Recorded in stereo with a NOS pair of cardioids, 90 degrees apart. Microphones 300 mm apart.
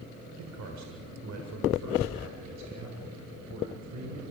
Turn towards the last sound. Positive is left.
turn(degrees=-70)